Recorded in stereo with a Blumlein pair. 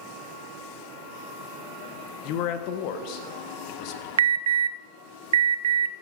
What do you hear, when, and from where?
2.2 s a man speaking: 40° left, 1.4 m
4.2 s an alarm: 65° right, 0.6 m